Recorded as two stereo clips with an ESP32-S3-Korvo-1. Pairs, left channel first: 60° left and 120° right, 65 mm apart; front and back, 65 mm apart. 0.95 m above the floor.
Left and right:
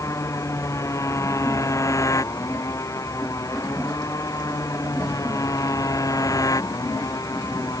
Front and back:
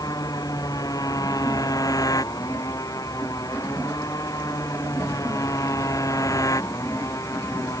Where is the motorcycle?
20° left; by 7.8 s 35° left.